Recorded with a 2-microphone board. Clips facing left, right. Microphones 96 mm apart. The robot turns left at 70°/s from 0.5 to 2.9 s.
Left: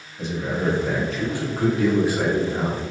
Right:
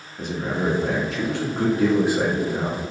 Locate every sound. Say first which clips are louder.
0.2 s a man speaking: even; 50° right, 2.5 m; by 2.8 s 150° left, 2.5 m